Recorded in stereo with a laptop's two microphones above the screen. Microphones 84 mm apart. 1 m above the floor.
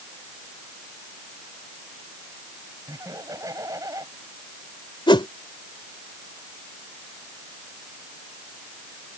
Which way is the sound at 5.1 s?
85° left.